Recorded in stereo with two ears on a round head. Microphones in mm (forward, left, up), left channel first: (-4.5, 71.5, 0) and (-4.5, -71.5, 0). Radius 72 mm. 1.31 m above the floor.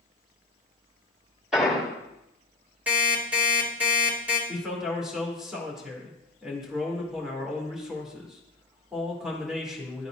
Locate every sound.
1.5 s an explosion: 5° right (ahead or behind), 2.5 m
2.9 s an alarm clock: 10° right (ahead or behind), 1.9 m
4.5 s a man speaking: 5° right (ahead or behind), 1.8 m